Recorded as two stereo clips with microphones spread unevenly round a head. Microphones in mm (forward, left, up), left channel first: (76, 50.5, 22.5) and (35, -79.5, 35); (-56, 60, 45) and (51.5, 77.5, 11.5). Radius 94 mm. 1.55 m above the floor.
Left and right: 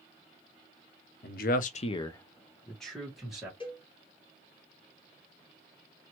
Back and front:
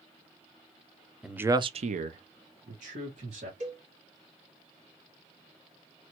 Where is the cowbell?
20° left, 2.0 m.